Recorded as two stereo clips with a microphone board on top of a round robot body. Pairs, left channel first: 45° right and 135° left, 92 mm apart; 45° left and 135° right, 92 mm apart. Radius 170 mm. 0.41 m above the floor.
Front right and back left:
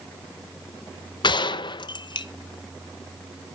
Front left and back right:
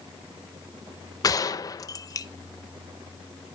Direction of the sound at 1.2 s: 5° right.